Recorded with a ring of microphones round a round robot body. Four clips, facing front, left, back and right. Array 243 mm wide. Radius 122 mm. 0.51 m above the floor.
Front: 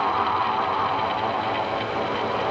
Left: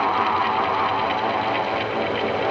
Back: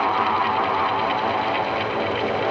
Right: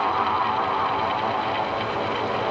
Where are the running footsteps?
No running footsteps in this recording.